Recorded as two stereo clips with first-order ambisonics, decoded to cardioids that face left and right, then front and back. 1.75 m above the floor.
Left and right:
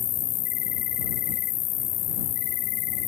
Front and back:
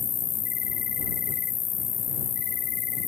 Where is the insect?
55° left.